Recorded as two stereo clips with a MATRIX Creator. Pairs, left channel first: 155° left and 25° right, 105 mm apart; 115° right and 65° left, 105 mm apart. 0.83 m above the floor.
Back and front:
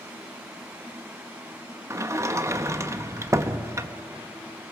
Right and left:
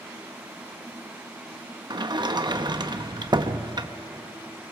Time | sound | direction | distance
1.9 | a sliding door | 35° left | 0.7 m